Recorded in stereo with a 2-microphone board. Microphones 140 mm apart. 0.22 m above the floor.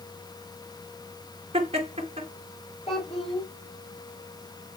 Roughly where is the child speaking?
Left.